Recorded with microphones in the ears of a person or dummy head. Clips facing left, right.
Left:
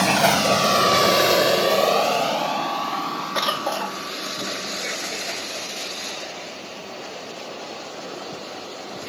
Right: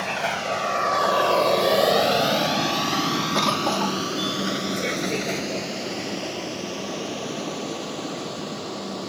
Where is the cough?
20° left (ahead or behind).